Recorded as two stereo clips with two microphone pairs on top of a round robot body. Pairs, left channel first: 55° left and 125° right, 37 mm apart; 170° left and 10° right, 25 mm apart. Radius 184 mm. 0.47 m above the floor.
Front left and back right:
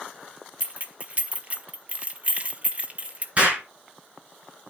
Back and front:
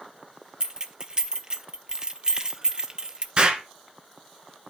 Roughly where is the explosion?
Right.